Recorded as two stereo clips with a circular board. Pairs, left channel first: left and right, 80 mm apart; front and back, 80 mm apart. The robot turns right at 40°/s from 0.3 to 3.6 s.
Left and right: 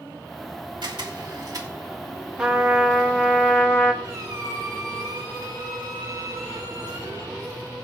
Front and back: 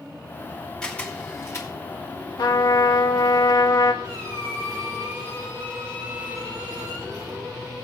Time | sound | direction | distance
0.8 | a camera shutter | 80° right | 2.5 m
2.4 | a trumpet | 15° right | 2 m
4.0 | a squeak | 135° right | 5 m